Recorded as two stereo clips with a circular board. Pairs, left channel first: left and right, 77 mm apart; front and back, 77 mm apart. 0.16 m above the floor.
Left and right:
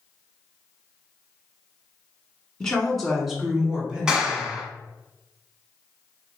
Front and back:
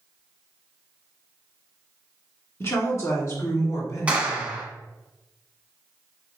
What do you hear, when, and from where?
2.6 s a woman speaking: 15° left, 1.4 m; by 4.6 s 25° right, 1.9 m
4.1 s a clap: 150° right, 1.0 m